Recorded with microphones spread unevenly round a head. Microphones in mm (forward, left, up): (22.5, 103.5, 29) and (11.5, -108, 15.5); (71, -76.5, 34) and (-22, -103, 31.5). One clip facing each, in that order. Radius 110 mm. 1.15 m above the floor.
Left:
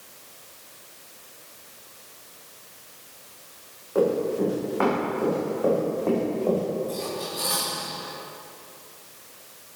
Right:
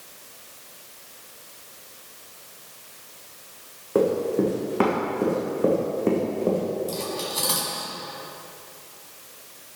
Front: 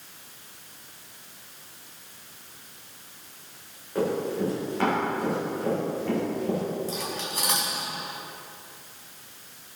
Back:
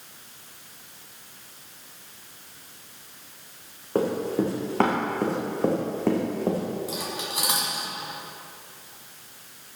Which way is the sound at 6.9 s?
85° right.